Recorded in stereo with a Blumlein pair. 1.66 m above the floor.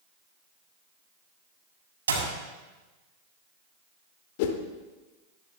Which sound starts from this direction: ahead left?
A whoosh, at 4.4 s.